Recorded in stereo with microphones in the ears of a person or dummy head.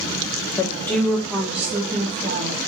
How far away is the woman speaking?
About 1.3 m.